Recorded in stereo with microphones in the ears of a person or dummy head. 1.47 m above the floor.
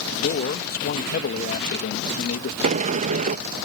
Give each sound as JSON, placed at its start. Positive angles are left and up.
{"t": 0.1, "sound": "a man speaking", "side_deg": 50}
{"t": 2.6, "sound": "a sliding door", "side_deg": -40}